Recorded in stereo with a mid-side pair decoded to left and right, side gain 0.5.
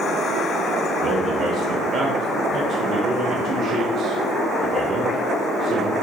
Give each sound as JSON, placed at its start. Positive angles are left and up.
{"t": 1.0, "sound": "a man speaking", "azimuth_deg": -60, "distance_m": 0.8}